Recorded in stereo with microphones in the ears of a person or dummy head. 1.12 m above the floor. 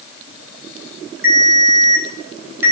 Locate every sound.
1.2 s a ringtone: 20° right (ahead or behind), 3 m